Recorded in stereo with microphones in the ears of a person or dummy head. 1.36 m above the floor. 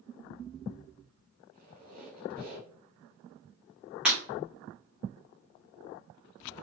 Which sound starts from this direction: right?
A squeak, at 1.5 s.